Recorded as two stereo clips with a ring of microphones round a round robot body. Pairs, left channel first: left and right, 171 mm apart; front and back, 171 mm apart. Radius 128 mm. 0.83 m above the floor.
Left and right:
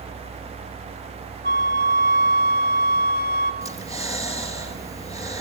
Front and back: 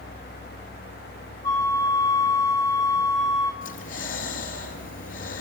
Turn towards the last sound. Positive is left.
turn(degrees=-20)